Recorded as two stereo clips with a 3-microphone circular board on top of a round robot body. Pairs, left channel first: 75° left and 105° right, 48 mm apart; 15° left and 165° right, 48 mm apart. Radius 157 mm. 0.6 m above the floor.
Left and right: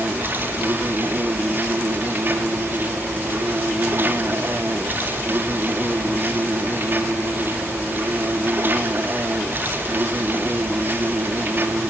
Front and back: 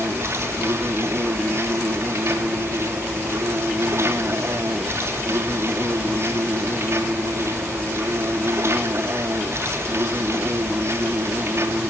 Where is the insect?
150° right, 3 m.